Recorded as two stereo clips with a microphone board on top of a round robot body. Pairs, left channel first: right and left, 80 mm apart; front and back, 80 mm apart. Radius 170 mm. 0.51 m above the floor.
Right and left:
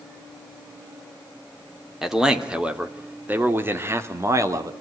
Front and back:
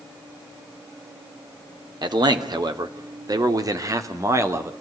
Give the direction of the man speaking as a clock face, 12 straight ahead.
6 o'clock.